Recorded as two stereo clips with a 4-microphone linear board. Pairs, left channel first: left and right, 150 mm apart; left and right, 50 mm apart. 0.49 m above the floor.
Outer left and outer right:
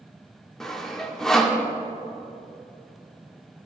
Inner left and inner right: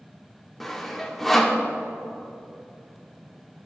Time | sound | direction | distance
0.6 | sawing | 5° left (ahead or behind) | 1.0 m